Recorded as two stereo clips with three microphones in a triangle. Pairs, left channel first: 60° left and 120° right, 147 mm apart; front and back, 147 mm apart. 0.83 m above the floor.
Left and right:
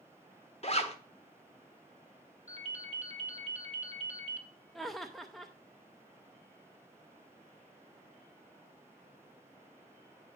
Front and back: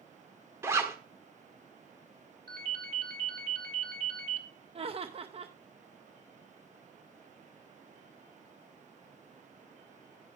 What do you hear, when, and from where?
0.6 s a zipper: 105° left, 1.4 m
2.5 s a ringtone: 170° right, 1.9 m
4.8 s laughter: 150° left, 0.6 m